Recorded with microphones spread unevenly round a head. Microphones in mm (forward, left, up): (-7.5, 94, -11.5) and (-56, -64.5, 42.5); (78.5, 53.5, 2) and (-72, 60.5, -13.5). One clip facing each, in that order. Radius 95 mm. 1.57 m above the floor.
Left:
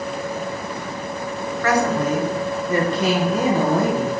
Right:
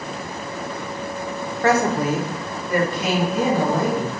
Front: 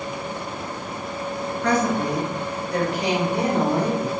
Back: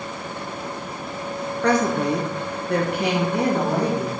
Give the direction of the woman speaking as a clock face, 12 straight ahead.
5 o'clock.